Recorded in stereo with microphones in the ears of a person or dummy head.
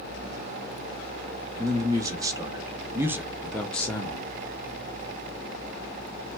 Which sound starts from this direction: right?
A man speaking, at 1.6 s.